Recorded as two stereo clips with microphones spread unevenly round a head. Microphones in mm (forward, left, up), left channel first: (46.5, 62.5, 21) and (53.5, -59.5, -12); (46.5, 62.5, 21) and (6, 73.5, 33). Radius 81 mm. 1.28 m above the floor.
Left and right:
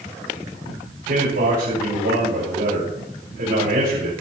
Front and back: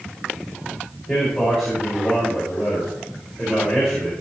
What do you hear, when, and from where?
1.1 s a man speaking: 95° right, 7.5 m